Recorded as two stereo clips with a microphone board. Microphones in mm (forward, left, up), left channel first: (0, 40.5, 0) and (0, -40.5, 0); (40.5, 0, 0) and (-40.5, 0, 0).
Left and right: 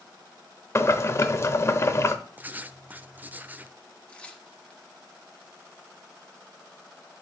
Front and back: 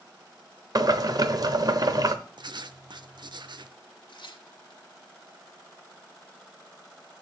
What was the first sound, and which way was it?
Boiling, 145° left.